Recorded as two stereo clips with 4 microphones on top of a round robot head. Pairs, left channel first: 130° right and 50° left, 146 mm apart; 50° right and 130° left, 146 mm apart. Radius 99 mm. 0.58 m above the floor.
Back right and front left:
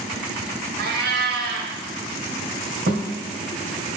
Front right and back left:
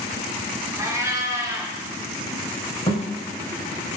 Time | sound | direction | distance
0.8 | a cat meowing | 60° left | 1.0 m
2.9 | a thud | 15° left | 3 m